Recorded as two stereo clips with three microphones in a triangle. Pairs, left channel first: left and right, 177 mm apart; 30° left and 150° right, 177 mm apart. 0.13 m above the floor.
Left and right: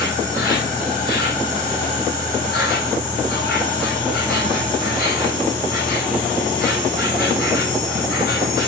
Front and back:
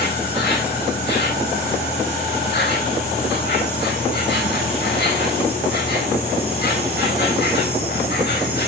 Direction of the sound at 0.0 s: 55° left.